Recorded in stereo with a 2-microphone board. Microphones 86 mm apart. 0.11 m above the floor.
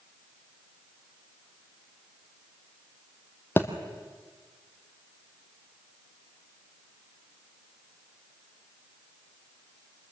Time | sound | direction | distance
3.6 | a thud | 25° left (ahead or behind) | 1.8 m